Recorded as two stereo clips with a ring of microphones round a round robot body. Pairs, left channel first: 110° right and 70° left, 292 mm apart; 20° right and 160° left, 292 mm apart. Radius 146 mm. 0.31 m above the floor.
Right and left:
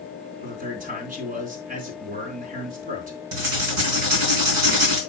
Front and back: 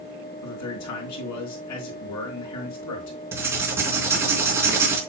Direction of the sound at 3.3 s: 75° left.